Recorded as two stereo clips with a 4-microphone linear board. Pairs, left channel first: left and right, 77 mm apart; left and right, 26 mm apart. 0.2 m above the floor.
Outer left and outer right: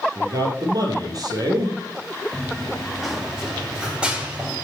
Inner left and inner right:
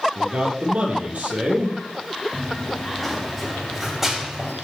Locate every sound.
0.1 s a man speaking: 50° right (ahead or behind), 4.5 m
2.3 s running footsteps: 10° left (ahead or behind), 2.5 m; by 4.5 s 20° right (ahead or behind), 4.5 m